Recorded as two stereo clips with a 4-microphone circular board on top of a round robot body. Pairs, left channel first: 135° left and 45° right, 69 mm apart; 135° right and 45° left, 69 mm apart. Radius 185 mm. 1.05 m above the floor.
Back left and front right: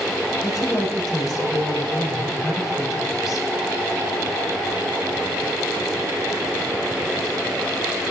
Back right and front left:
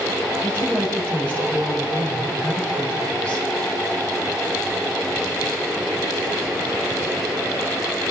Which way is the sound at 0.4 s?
160° left.